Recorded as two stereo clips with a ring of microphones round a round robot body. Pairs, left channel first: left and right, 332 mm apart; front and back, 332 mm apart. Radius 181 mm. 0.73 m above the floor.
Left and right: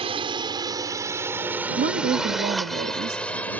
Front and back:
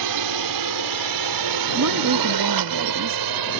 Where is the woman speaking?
150° right.